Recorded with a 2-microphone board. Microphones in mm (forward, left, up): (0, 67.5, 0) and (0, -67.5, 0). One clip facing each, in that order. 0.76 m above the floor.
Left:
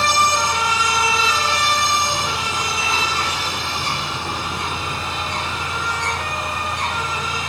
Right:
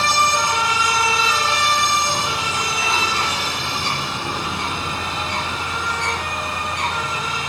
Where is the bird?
75° right (ahead or behind), 3.5 m.